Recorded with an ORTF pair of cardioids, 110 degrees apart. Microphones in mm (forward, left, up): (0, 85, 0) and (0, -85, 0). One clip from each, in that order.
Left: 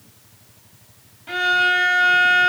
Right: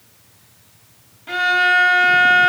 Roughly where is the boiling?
No boiling in this recording.